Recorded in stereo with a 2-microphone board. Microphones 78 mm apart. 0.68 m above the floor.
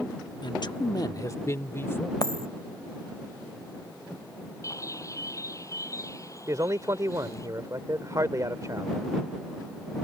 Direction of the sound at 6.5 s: 45° right (ahead or behind).